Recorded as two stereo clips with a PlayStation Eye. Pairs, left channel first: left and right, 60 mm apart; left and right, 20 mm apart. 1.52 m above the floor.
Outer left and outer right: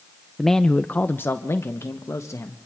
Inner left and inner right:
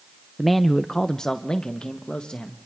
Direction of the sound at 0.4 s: Centre (ahead or behind).